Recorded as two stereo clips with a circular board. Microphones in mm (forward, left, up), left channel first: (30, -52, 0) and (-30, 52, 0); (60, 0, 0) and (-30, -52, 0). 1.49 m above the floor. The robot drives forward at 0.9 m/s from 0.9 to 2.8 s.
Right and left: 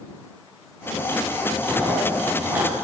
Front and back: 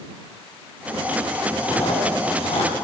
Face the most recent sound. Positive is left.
turn(degrees=55)